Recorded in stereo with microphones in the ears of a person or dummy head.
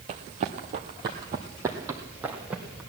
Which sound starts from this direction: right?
Running footsteps, at 0.1 s.